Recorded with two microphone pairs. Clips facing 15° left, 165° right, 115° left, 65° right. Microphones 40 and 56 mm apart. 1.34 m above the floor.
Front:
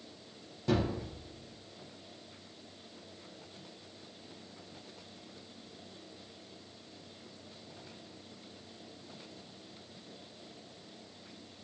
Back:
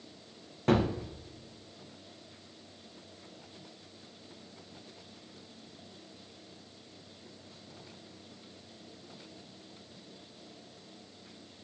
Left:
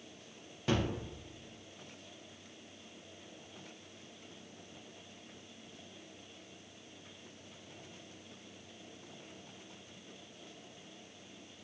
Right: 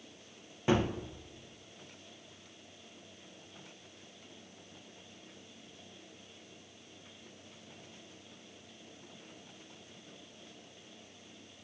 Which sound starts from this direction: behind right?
A gunshot, at 0.7 s.